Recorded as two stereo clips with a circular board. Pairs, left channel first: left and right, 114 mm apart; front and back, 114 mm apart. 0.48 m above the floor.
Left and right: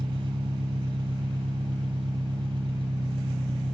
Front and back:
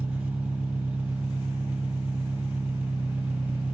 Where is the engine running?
105° right, 0.9 m.